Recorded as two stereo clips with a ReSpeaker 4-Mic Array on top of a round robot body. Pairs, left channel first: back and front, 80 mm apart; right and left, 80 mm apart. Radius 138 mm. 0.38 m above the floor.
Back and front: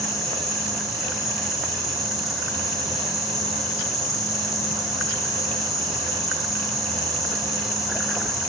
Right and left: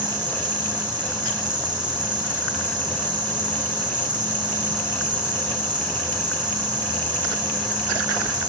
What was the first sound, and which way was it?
An insect, 90° left.